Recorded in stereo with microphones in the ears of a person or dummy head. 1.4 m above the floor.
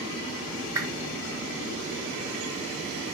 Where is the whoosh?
20° right (ahead or behind), 2 m.